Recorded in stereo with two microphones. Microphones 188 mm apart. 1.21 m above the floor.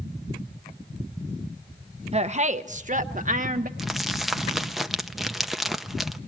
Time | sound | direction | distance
2.1 | a woman speaking | 35° right (ahead or behind) | 0.6 m
3.8 | crumpling | centre (ahead or behind) | 0.6 m